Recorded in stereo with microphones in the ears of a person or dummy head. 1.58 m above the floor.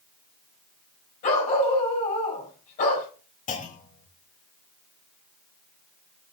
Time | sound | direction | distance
1.2 | a dog barking | 40° left (ahead or behind) | 4.5 m
3.5 | a clunk | 40° left (ahead or behind) | 1.2 m